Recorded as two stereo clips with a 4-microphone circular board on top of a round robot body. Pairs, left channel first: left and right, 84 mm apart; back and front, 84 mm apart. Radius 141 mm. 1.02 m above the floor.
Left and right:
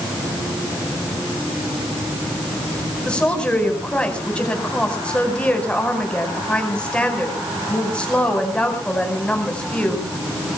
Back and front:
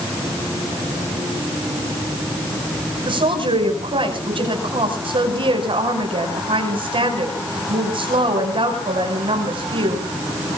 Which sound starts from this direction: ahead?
A woman speaking, at 3.0 s.